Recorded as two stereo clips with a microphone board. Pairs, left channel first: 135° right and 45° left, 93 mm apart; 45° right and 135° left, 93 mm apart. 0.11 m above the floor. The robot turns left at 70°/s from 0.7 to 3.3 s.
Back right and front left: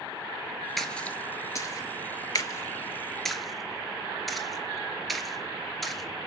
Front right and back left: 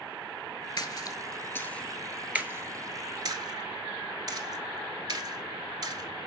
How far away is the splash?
About 0.5 m.